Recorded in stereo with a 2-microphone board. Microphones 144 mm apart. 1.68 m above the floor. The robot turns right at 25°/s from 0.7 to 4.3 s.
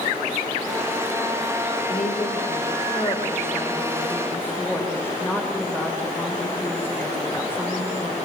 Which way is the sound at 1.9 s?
105° left.